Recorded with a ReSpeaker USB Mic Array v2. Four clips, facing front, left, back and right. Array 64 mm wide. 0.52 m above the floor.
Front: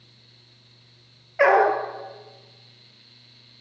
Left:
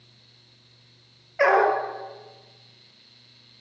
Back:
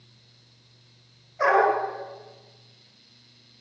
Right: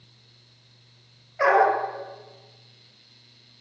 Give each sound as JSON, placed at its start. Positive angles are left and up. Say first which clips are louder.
{"t": 1.4, "sound": "a dog barking", "louder": "even, front 3 dB", "azimuth_deg": 20, "distance_m": 4.0}